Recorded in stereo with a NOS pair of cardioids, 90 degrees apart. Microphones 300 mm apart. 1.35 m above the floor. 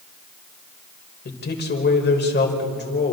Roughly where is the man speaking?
Ahead left.